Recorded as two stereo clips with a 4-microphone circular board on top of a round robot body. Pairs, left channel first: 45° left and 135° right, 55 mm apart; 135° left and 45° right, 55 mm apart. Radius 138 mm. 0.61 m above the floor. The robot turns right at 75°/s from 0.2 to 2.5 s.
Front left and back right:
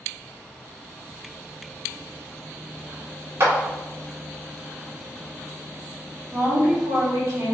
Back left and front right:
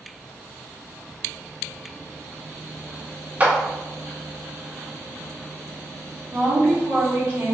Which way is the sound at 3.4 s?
105° right.